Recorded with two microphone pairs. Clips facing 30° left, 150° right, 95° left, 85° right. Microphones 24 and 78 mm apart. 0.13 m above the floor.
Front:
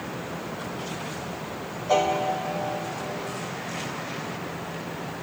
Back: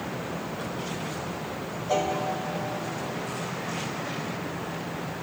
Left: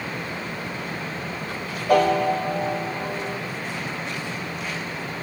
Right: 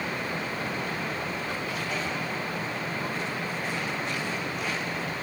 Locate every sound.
1.9 s a piano: 100° left